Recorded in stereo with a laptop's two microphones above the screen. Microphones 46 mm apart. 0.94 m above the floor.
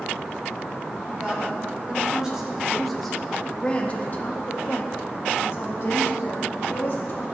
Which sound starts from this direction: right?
A woman speaking, at 1.1 s.